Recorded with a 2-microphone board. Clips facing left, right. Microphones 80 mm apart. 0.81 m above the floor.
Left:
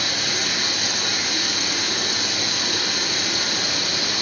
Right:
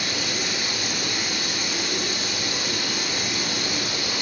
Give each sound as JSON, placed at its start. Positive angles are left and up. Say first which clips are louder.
{"t": 0.0, "sound": "running water", "louder": "left 1 dB", "side_deg": 85, "distance_m": 3.0}